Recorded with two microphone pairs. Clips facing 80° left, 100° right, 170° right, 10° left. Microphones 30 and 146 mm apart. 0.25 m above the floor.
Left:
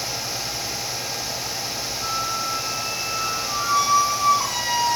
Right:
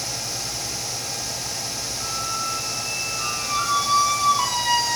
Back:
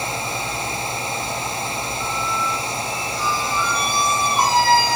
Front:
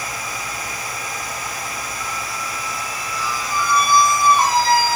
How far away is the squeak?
About 4 m.